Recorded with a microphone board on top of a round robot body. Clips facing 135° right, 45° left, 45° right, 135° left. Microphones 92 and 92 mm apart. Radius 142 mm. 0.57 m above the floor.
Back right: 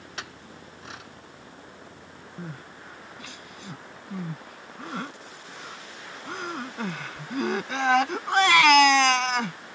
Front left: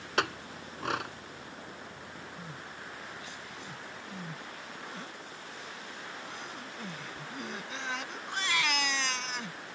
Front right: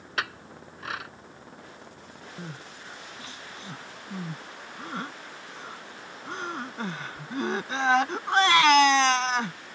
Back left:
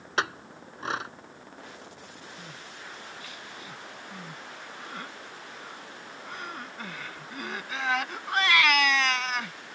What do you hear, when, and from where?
0.2 s a clink: 70° left
2.4 s crying: 105° right